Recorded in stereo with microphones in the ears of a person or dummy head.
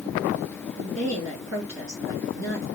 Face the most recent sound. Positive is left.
turn(degrees=-60)  # may be behind; listen again after turning